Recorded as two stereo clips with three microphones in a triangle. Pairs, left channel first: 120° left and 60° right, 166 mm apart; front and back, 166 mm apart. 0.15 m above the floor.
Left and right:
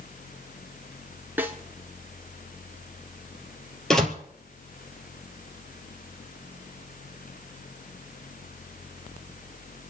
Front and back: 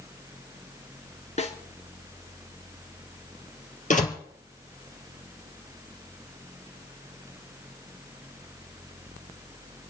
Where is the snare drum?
15° left, 1.5 m.